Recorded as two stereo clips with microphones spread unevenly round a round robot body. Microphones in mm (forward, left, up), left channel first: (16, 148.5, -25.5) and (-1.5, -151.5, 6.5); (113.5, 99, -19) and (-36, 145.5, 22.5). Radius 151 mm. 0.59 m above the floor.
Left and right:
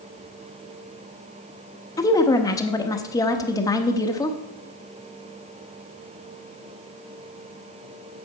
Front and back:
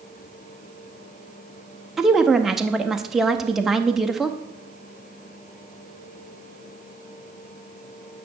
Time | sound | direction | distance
2.0 | a woman speaking | 40° left | 0.8 m